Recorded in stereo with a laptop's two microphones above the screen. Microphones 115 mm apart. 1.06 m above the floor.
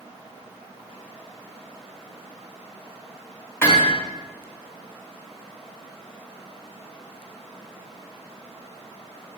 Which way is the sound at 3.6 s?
20° left (ahead or behind).